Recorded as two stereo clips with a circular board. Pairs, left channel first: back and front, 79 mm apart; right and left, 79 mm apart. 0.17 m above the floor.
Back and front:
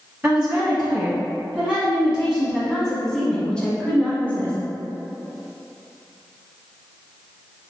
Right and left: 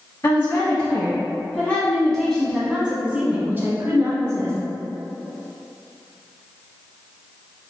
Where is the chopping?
I don't hear chopping.